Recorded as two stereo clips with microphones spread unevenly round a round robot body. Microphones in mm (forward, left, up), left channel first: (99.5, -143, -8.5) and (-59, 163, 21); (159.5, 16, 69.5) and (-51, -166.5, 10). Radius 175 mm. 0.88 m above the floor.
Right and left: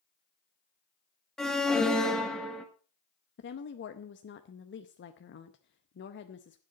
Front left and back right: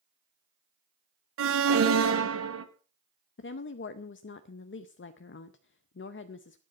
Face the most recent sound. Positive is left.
turn(degrees=-10)